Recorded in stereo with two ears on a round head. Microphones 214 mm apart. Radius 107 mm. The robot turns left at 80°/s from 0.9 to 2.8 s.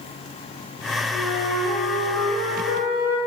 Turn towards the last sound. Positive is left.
turn(degrees=55)